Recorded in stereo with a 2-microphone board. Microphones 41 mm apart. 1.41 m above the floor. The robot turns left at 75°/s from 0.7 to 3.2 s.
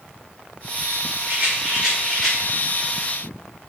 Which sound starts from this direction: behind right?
A rattle, at 1.3 s.